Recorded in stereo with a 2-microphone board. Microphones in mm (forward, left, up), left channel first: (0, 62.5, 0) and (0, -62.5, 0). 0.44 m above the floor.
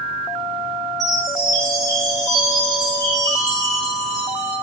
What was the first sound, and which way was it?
A chime, 25° left (ahead or behind).